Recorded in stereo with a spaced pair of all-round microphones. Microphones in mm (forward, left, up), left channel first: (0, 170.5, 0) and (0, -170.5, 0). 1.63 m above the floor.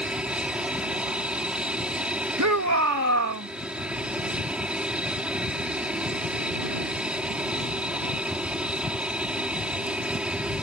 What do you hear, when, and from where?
0.0 s an aircraft: 5° right (ahead or behind)
2.4 s a shout: 50° right (ahead or behind)